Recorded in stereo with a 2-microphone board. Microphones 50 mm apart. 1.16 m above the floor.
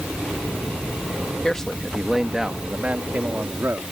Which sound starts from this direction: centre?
A man speaking, at 1.4 s.